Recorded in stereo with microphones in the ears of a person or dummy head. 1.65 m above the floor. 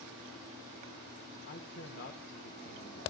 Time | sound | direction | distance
1.5 | a man speaking | 50° left (ahead or behind) | 1.4 m